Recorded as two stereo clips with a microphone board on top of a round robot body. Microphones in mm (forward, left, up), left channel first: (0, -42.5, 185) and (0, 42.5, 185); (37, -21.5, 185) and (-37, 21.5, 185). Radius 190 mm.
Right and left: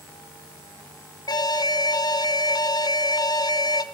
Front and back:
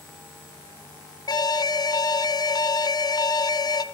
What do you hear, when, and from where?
1.3 s an alarm: 60° right, 1.4 m